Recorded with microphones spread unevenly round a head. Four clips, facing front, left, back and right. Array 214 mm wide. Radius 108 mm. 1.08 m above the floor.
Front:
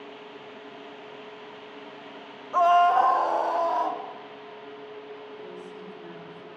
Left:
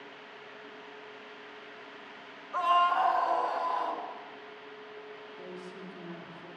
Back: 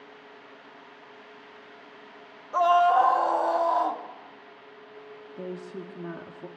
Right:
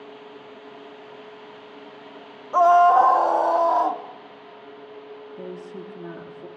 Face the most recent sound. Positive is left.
turn(degrees=-135)